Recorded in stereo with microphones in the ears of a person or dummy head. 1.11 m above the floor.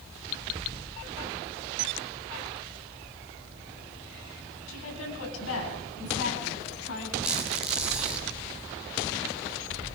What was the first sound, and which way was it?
A woman speaking, 90° left.